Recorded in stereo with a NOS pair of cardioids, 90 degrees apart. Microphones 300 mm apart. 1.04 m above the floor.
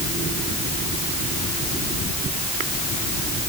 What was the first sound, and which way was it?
Only background noise.